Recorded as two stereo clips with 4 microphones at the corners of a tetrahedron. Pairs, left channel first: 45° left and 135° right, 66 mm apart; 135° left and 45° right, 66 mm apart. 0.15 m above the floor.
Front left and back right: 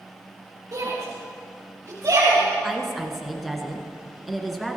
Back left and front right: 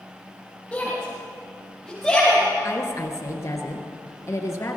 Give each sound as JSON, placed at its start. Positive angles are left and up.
{"t": 0.7, "sound": "a shout", "azimuth_deg": -160, "distance_m": 4.0}
{"t": 2.6, "sound": "a woman speaking", "azimuth_deg": 135, "distance_m": 2.0}